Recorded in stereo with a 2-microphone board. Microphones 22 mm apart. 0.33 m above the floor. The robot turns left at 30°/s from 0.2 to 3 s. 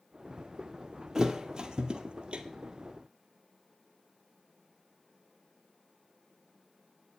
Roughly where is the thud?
Right.